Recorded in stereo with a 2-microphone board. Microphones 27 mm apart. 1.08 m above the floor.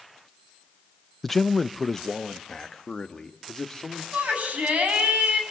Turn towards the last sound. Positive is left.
turn(degrees=-70)  # may be behind; listen again after turning